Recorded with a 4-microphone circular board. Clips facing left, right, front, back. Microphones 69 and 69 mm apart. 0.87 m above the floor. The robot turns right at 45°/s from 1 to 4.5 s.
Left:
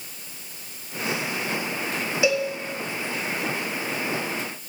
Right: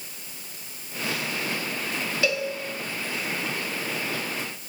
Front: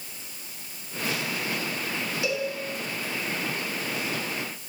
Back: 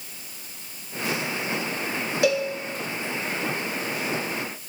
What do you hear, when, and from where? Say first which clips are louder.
2.2 s a cowbell: left 4 dB, back 7 dB; 160° left, 0.5 m; by 2.5 s 170° left, 0.5 m